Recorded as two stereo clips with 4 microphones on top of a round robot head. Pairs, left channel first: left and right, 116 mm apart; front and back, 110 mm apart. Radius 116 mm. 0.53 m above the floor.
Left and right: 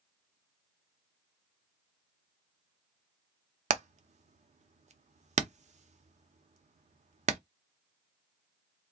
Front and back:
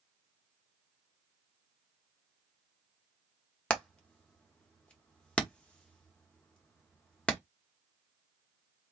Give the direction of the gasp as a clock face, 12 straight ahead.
No gasp in this recording.